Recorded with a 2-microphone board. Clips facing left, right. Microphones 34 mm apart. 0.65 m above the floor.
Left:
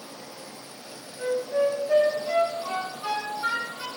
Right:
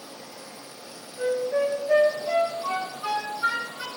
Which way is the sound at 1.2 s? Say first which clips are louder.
Right 1 dB; 30° right (ahead or behind).